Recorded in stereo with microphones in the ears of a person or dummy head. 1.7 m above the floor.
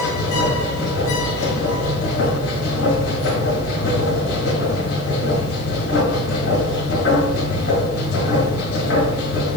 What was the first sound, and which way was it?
A machine running, 85° left.